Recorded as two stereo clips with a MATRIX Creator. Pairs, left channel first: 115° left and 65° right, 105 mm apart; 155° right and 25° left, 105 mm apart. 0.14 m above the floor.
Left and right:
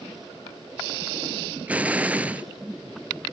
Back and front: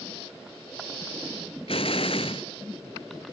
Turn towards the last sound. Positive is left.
turn(degrees=-140)